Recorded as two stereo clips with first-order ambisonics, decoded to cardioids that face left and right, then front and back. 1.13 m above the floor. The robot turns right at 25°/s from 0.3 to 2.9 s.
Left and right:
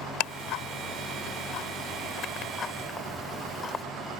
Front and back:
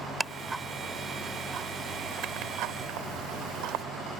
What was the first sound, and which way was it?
Ticking, 95° left.